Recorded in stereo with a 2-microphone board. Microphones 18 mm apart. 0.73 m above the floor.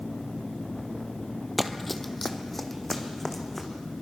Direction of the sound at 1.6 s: Centre (ahead or behind).